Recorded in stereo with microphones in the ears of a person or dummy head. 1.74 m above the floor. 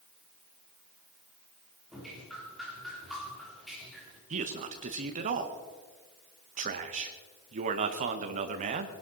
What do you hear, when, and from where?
1.9 s dripping: centre (ahead or behind), 4.5 m
4.3 s a man speaking: 40° right (ahead or behind), 1.4 m